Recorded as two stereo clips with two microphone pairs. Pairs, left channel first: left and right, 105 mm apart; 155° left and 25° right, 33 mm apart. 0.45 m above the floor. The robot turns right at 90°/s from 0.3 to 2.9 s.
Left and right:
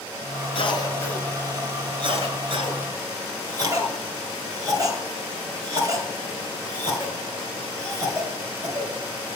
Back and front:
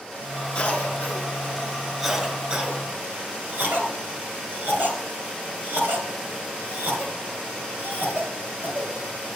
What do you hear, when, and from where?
0.6 s a cough: 105° left, 3 m; by 8.9 s 45° right, 3 m